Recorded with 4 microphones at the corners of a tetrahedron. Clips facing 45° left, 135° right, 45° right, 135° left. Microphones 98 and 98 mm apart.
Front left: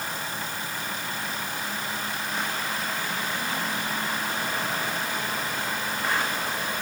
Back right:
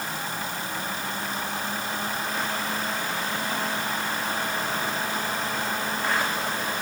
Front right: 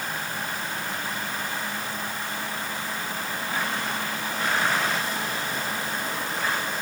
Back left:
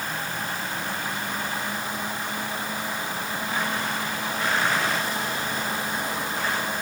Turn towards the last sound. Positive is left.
No sound to turn to.